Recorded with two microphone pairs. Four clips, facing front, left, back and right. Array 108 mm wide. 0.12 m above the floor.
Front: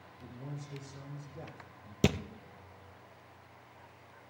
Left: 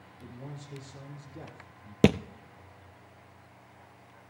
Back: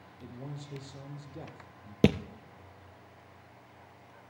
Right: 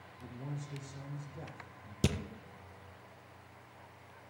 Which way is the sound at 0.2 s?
160° left.